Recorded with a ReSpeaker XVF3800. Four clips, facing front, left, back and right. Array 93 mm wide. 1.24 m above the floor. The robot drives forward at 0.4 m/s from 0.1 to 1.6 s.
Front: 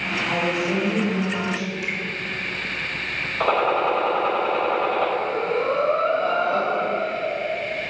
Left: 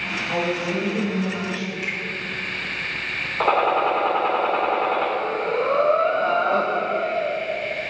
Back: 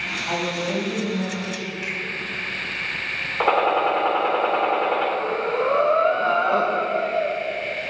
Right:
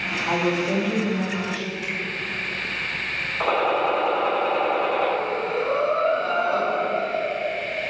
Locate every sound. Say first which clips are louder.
0.3 s a woman speaking: right 2 dB, front 2 dB; 110° right, 2.5 m; by 1.7 s 120° right, 2.5 m
1.8 s a finger snap: left 1 dB, front 1 dB; 125° left, 3 m
3.4 s a gunshot: left 3 dB, back 1 dB; 145° left, 1.6 m
5.2 s breathing: left 2 dB, even; 150° left, 0.9 m